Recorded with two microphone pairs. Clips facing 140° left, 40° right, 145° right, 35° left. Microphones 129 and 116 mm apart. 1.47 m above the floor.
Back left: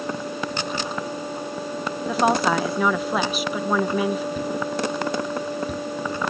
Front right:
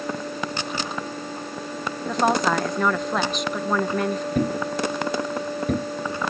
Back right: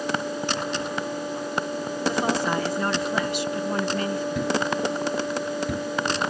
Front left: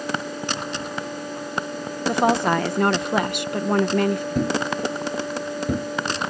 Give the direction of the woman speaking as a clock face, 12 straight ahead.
10 o'clock.